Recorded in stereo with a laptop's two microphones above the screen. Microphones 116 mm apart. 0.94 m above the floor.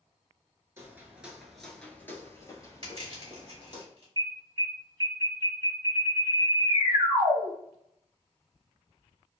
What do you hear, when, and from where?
0.8 s footsteps: 20° right (ahead or behind), 0.9 m; by 3.8 s 40° left (ahead or behind), 1.6 m
2.8 s crushing: 50° right (ahead or behind), 1.1 m
4.2 s an alarm: 30° right (ahead or behind), 1.0 m